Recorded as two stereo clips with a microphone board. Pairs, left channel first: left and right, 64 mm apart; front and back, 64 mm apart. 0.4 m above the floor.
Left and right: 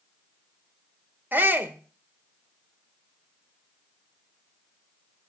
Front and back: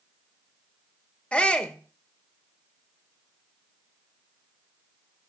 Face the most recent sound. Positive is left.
turn(degrees=-60)